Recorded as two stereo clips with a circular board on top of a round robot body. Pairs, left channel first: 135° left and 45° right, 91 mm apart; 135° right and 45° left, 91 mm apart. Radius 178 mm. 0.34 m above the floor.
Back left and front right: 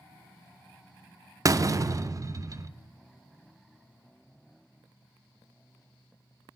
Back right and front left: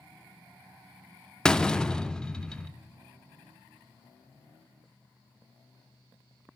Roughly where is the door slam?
Ahead right.